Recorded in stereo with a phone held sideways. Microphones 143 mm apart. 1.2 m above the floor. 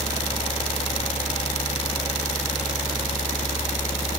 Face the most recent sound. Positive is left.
turn(degrees=50)  # may be behind; listen again after turning